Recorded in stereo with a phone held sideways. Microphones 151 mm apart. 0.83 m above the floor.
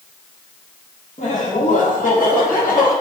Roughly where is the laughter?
Left.